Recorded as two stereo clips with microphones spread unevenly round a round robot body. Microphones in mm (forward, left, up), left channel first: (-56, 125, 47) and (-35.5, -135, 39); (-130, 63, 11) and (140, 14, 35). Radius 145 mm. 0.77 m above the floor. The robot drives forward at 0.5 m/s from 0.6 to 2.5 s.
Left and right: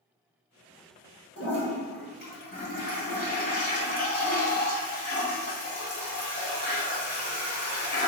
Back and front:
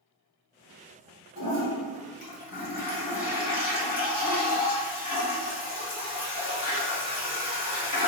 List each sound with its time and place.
1.4 s a toilet flushing: 140° left, 1.4 m; by 8.1 s 150° left, 1.9 m